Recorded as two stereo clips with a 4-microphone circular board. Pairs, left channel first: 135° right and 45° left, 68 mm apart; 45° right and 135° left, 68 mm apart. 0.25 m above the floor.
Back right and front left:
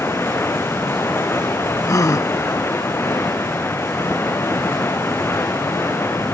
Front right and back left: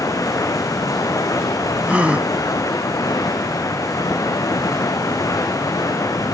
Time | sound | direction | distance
0.0 | running water | 80° right | 3.5 m
1.9 | a gasp | 155° right | 0.6 m